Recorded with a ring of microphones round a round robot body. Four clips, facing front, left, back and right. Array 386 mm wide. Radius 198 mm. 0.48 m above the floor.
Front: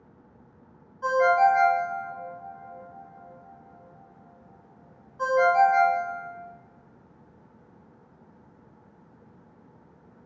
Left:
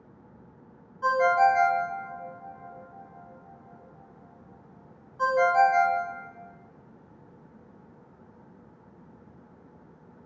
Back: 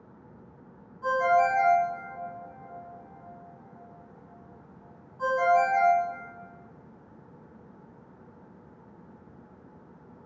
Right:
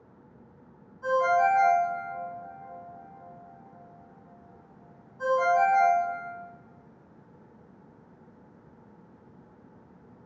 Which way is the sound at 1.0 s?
50° left.